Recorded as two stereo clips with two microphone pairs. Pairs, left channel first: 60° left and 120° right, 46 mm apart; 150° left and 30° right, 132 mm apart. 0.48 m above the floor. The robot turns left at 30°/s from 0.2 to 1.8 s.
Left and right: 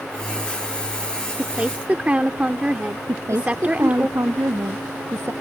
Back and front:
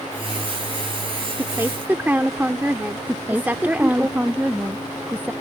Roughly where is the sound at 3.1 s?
Right.